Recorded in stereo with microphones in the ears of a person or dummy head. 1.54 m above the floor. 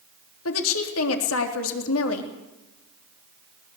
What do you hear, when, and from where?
0.5 s a woman speaking: 80° left, 3 m